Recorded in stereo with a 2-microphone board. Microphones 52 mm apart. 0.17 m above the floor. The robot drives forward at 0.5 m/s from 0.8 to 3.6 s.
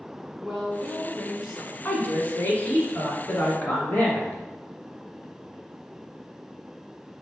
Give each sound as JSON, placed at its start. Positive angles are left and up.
{"t": 0.4, "sound": "a woman speaking", "side_deg": -5, "distance_m": 1.1}
{"t": 1.9, "sound": "a woman speaking", "side_deg": 35, "distance_m": 1.3}